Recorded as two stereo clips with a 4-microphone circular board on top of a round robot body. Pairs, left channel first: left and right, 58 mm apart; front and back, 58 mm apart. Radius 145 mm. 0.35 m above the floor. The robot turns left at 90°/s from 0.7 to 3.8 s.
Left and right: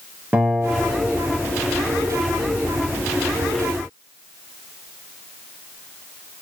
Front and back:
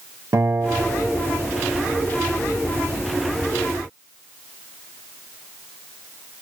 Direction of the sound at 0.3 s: 155° right.